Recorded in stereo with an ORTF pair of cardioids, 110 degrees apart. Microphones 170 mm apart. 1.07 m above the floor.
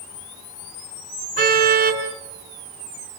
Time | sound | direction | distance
1.4 | a car horn | 65° right | 5.5 m